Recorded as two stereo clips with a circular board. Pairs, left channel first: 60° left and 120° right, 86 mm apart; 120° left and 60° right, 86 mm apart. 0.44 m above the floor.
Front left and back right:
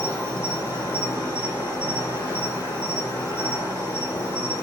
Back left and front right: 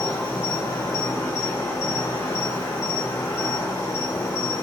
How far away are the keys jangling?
No keys jangling in this recording.